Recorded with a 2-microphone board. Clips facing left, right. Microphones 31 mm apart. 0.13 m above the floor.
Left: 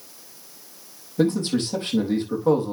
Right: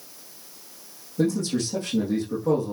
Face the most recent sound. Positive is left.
turn(degrees=40)  # may be behind; listen again after turning